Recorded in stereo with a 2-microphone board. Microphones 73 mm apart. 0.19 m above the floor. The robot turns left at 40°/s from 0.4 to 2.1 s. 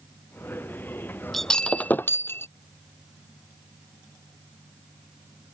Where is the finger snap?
I don't hear a finger snap.